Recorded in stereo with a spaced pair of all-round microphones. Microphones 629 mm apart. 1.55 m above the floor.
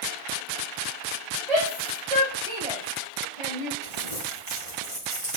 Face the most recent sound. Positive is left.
turn(degrees=-65)  # may be behind; listen again after turning